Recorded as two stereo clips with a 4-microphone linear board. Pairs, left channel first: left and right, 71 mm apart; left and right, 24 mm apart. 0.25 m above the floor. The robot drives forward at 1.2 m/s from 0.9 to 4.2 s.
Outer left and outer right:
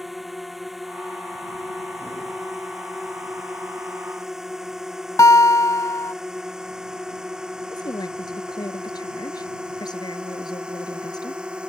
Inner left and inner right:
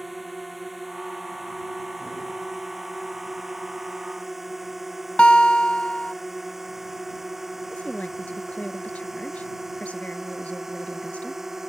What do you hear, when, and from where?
0.0 s a drone: centre (ahead or behind); by 11.7 s 15° right (ahead or behind)
5.2 s a guitar: 50° left (ahead or behind)
7.7 s a woman speaking: 75° left (ahead or behind)